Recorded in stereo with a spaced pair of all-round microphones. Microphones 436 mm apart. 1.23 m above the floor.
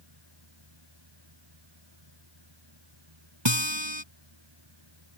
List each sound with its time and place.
0.0 s a fan: 60° right (ahead or behind)
3.5 s a guitar: 80° right